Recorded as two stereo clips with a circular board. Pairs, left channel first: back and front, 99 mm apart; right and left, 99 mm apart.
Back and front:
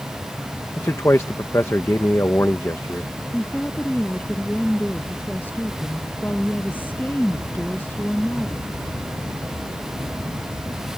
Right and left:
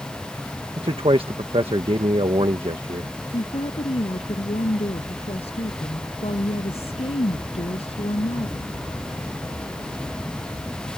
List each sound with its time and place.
0.8 s a man speaking: 120° left
3.3 s a woman speaking: 105° right